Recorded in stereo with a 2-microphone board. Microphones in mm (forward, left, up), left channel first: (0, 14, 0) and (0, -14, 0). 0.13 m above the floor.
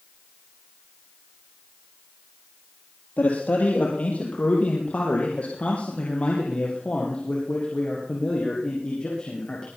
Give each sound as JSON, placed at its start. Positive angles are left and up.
{"t": 3.2, "sound": "a man speaking", "side_deg": 60, "distance_m": 3.0}